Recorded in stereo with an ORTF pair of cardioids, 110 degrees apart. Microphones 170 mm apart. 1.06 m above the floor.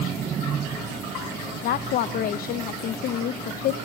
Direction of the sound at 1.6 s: 65° left.